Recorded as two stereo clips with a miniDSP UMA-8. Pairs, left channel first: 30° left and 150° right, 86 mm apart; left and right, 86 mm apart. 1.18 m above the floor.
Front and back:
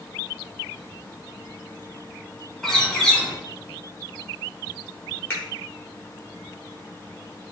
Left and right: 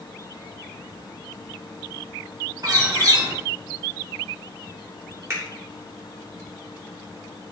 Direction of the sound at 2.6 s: 55° right.